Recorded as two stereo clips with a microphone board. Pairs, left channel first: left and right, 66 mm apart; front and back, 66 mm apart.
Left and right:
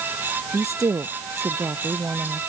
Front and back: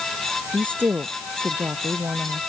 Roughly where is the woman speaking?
Behind right.